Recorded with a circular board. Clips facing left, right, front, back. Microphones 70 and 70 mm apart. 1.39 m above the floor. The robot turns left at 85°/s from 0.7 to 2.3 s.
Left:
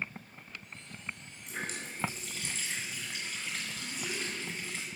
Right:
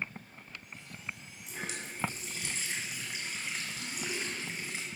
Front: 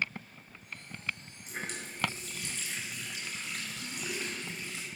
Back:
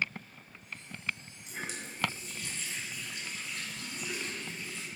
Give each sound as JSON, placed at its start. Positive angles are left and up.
{"t": 1.5, "sound": "a running tap", "azimuth_deg": 60, "distance_m": 4.5}